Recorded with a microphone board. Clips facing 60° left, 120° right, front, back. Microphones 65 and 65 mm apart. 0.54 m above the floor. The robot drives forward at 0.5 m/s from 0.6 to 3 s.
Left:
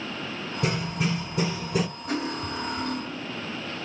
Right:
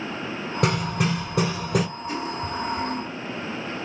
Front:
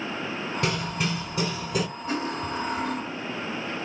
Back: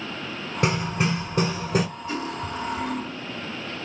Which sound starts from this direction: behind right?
Hammering, at 0.6 s.